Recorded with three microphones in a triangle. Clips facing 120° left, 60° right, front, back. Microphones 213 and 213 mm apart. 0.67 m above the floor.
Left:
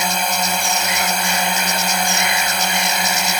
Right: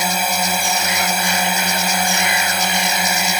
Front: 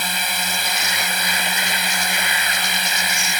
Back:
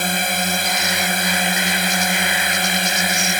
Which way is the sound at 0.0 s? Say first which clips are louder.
Right 1 dB, back 7 dB; 145° right.